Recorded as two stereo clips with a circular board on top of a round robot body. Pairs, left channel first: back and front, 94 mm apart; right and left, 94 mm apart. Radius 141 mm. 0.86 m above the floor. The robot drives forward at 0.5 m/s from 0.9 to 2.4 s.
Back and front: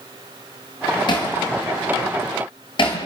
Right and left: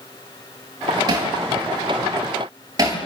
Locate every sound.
1.1 s hammering: 140° left, 7 m; by 3.0 s 145° left, 7.5 m